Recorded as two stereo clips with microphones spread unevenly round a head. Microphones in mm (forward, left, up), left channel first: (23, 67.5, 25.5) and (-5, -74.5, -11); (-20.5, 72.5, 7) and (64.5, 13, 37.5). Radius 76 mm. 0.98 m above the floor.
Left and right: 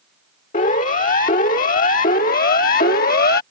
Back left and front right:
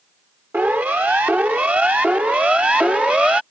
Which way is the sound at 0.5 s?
40° left.